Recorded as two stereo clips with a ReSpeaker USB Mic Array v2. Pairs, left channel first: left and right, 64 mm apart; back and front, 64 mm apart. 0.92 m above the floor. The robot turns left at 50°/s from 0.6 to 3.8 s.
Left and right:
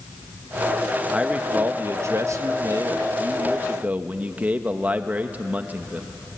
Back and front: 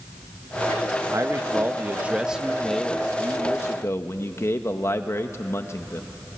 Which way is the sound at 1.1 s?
15° right.